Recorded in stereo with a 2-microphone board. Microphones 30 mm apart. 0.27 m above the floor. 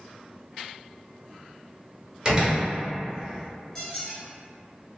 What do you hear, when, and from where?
2.2 s a door slam: 20° right (ahead or behind), 0.9 m
3.8 s a squeak: 15° left (ahead or behind), 1.9 m